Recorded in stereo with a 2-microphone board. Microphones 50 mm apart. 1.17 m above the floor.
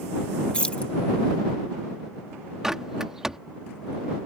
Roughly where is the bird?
Centre.